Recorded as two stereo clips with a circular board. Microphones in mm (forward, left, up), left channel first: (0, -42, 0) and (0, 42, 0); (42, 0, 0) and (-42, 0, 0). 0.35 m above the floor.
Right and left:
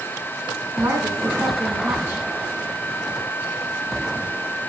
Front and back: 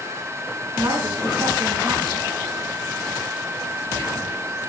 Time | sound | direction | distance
0.8 | a woman speaking | 150° left | 3 m